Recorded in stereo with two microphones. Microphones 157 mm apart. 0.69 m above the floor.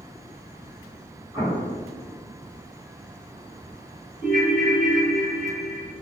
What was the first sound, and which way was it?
An explosion, 30° right (ahead or behind).